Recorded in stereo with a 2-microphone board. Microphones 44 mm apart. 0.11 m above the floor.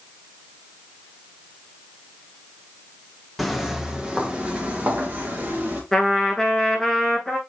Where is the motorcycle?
I don't hear a motorcycle.